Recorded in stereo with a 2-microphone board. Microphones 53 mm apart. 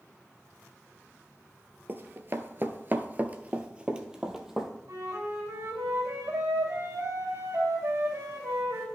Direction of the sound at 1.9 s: 35° right (ahead or behind).